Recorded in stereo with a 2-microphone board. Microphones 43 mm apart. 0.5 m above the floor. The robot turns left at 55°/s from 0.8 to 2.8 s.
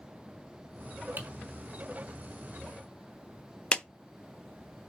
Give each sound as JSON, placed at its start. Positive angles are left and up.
{"t": 1.2, "sound": "typing on a keyboard", "side_deg": -50, "distance_m": 3.5}
{"t": 3.7, "sound": "a clap", "side_deg": 25, "distance_m": 0.5}